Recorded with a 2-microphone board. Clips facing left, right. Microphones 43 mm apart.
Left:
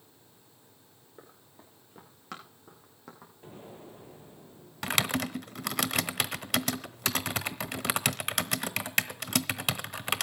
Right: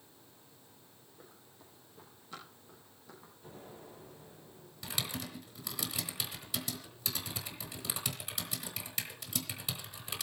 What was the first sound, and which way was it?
Running footsteps, 80° left.